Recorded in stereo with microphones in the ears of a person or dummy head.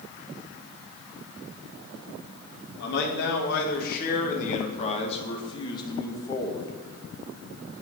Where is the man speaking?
65° left (ahead or behind), 2.5 m; by 6.7 s 15° left (ahead or behind), 2 m.